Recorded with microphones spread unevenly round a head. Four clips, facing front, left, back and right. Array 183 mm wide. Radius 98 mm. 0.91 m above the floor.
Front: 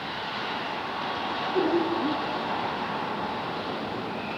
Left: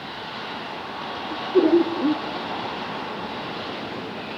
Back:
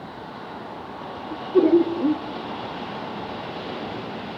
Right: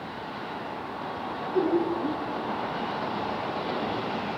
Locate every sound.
1.3 s laughter: 145° left, 2.5 m